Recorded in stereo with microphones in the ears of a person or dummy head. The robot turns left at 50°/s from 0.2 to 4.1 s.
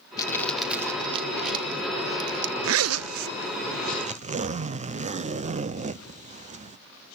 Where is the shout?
No shout in this recording.